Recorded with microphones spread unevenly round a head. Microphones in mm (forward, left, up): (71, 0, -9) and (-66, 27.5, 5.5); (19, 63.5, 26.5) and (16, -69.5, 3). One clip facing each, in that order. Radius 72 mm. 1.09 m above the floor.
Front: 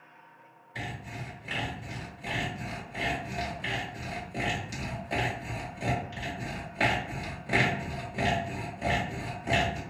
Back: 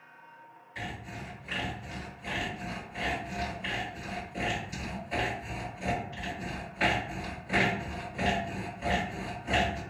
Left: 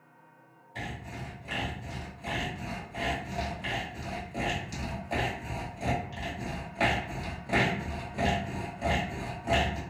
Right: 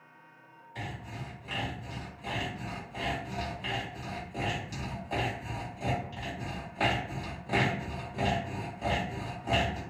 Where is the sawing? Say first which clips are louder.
Front 1 dB, left 1 dB; straight ahead, 1.5 m.